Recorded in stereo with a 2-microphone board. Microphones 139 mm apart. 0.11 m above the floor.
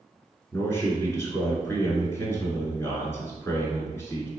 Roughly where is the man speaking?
Centre.